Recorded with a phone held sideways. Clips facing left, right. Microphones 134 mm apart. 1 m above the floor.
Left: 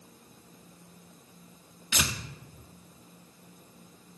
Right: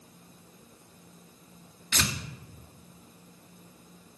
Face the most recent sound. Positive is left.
turn(degrees=10)  # may be behind; listen again after turning